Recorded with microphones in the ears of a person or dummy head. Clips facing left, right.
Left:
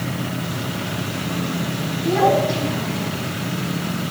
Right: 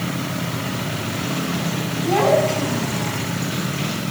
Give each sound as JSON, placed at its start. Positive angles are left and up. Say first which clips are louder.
{"t": 2.0, "sound": "a child speaking", "louder": "even", "side_deg": -60, "distance_m": 7.0}